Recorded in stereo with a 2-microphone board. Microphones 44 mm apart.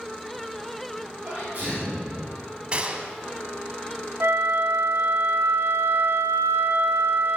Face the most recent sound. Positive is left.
turn(degrees=-80)